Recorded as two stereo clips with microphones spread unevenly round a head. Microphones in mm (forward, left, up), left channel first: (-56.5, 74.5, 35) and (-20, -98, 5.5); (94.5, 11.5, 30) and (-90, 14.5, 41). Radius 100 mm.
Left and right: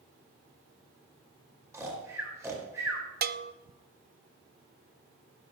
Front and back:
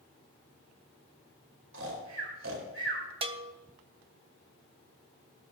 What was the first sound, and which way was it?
Snoring, 155° right.